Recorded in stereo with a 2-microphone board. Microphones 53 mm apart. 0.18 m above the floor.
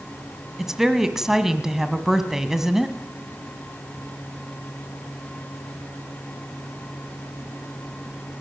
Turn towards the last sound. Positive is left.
turn(degrees=-10)  # may be behind; listen again after turning